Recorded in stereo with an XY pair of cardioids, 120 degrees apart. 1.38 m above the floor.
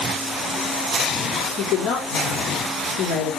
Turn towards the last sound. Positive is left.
turn(degrees=60)